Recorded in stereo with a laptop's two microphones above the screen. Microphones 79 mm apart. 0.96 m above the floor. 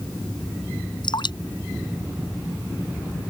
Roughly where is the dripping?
Left.